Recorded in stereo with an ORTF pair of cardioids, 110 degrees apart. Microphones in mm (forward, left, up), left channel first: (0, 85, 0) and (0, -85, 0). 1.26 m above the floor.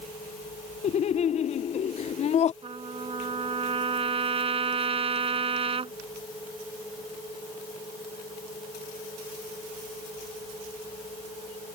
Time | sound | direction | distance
0.8 | laughter | 40° left | ?
2.6 | a trumpet | 35° right | ?